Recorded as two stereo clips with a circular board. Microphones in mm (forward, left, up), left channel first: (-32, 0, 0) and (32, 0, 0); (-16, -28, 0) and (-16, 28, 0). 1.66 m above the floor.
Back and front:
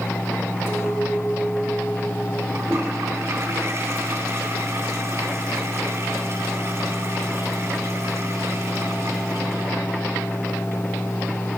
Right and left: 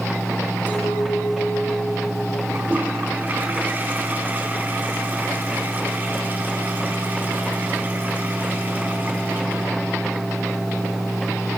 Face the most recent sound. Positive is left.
turn(degrees=40)